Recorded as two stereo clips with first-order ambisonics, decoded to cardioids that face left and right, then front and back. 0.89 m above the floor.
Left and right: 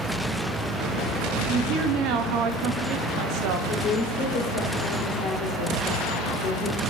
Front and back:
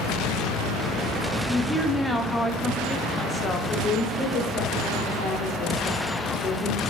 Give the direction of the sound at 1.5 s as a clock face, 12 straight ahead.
3 o'clock.